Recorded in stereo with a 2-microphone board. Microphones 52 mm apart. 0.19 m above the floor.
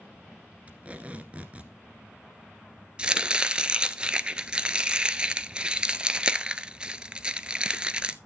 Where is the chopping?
20° right (ahead or behind), 0.5 m.